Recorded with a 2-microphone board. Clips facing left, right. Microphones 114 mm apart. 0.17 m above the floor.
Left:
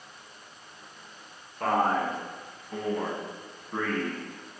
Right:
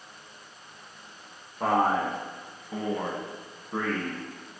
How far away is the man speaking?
About 1.3 m.